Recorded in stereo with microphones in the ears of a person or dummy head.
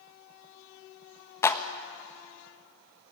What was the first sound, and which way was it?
A clap, 15° left (ahead or behind).